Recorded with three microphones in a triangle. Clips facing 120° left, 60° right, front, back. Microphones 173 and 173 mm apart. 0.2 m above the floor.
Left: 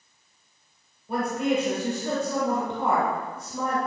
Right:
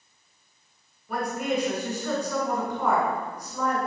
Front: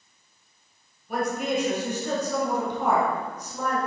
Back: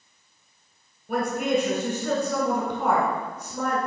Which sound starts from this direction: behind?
A woman speaking, at 1.1 s.